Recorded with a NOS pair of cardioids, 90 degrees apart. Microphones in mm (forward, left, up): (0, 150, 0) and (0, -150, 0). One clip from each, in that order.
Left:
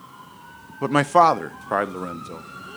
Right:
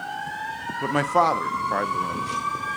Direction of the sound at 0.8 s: 20° left.